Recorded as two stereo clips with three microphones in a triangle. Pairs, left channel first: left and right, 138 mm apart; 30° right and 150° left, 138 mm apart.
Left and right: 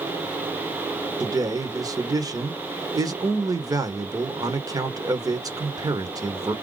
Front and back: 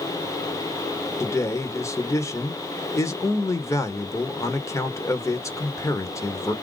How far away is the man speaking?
About 0.9 m.